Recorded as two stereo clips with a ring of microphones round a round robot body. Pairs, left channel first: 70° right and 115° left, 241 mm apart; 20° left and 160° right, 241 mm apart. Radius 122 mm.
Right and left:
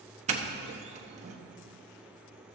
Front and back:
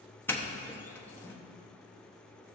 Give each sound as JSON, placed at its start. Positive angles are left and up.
{"t": 0.3, "sound": "a doorbell", "azimuth_deg": 95, "distance_m": 1.0}